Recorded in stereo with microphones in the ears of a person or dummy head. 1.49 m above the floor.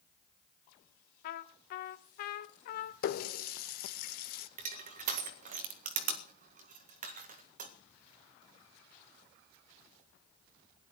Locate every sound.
1.2 s a trumpet: 55° left (ahead or behind), 0.9 m
3.0 s a running tap: 50° left (ahead or behind), 0.7 m
4.6 s crushing: 40° right (ahead or behind), 1.8 m